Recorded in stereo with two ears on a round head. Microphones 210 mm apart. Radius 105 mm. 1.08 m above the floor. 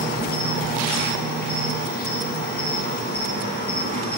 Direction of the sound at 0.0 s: 40° left (ahead or behind).